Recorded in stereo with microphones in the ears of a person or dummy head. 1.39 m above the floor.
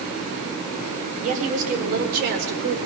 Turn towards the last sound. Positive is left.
turn(degrees=-65)  # may be behind; listen again after turning